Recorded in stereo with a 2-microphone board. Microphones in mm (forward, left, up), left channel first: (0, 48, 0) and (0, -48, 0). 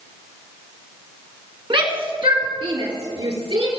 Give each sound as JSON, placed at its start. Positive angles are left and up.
{"t": 1.7, "sound": "a shout", "side_deg": -55, "distance_m": 3.0}